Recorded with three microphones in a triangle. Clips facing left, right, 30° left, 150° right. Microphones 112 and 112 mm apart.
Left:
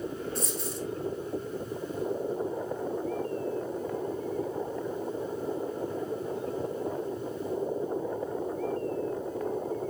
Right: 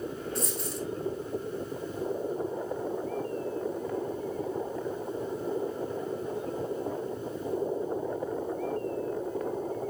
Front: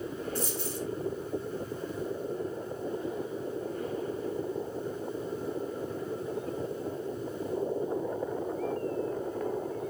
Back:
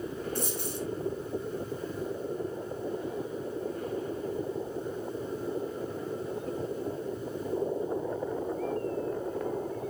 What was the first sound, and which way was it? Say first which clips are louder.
A dropped coin: even, even; straight behind.